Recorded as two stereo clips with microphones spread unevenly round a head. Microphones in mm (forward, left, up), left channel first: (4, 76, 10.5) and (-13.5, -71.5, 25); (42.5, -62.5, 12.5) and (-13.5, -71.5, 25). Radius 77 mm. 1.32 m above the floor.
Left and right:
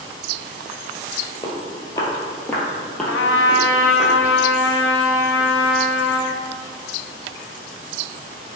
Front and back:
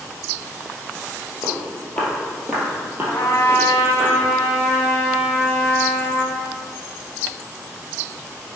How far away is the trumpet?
About 0.7 m.